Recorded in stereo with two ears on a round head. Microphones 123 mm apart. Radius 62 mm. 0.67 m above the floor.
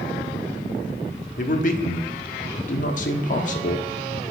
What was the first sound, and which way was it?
A man speaking, 60° left (ahead or behind).